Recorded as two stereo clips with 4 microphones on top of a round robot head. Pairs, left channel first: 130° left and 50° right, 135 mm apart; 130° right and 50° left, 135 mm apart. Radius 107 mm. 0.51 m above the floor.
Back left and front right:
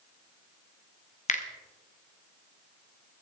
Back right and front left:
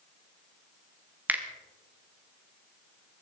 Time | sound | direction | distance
1.3 | a finger snap | 125° left | 1.6 m